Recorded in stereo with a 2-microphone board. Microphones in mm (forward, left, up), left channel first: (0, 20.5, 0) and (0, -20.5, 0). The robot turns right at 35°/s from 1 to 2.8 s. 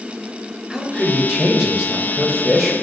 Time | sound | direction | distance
0.7 | a man speaking | 20° right (ahead or behind) | 1.1 m